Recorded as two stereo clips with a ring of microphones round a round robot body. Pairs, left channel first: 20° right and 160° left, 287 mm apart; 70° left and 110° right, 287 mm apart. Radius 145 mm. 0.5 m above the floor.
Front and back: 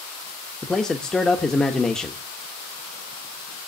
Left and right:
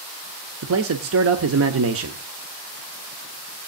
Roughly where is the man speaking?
Right.